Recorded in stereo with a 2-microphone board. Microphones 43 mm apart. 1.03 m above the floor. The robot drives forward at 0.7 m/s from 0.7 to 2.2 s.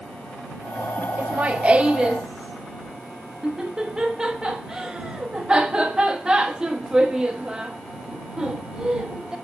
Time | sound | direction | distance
1.2 | laughter | 45° right (ahead or behind) | 0.5 m